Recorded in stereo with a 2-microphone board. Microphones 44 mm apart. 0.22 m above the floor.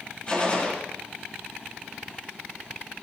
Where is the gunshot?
30° left (ahead or behind), 6.5 m.